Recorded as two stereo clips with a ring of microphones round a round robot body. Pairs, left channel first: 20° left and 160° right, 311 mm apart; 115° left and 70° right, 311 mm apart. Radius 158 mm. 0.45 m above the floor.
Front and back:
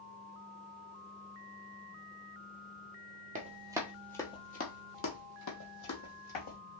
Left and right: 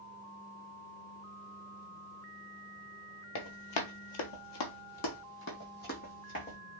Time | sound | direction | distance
3.4 | running footsteps | 140° left | 1.0 m